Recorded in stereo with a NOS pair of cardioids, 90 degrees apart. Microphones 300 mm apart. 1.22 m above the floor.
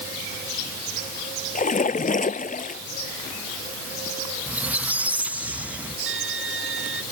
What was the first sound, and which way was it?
A splash, 25° left.